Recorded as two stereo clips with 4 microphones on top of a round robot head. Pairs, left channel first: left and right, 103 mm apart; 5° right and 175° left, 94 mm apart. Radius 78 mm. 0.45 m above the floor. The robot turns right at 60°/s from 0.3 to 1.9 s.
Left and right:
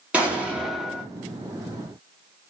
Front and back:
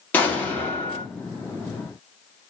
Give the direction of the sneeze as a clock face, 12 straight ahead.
I don't hear a sneeze.